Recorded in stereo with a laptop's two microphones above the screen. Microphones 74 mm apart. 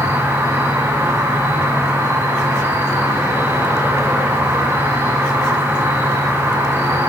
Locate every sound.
0.0 s an insect: 35° right (ahead or behind), 5.5 m